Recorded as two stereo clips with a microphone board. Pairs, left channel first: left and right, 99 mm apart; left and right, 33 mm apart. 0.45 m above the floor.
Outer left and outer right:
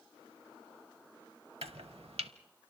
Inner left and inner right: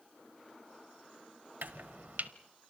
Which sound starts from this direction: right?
Chopping, at 1.6 s.